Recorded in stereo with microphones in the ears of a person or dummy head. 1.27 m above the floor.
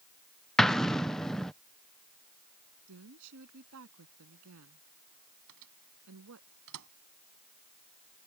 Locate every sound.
0.6 s an explosion: centre (ahead or behind)
2.9 s a woman speaking: 70° right (ahead or behind)
5.5 s a microwave: 80° right